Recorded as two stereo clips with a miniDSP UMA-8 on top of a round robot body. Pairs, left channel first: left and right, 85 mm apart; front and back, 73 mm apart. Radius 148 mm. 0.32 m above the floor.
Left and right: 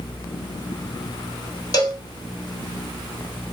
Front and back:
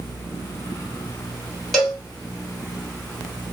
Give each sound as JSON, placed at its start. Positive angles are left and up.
{"t": 1.7, "sound": "a cowbell", "azimuth_deg": 85, "distance_m": 1.8}